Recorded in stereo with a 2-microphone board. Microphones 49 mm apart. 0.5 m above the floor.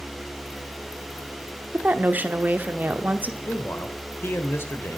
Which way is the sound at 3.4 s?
50° left (ahead or behind).